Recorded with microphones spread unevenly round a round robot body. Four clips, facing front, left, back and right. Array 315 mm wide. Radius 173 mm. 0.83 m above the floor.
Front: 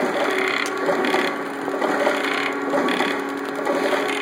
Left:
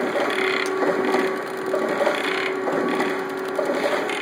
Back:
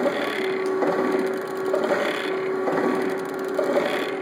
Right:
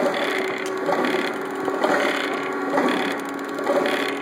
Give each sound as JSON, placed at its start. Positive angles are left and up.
{"t": 0.7, "sound": "cutlery clinking", "azimuth_deg": 10, "distance_m": 1.2}